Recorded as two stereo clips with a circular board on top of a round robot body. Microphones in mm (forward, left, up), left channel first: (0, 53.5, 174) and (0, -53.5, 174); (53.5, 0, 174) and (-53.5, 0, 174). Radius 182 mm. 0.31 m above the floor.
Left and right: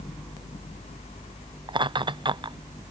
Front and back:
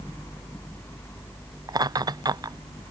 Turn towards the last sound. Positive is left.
turn(degrees=-130)